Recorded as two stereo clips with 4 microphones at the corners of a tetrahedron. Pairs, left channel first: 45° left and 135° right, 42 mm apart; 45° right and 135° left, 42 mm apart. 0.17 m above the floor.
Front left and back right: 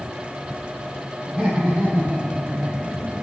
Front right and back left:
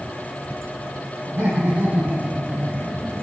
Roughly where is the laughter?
Behind left.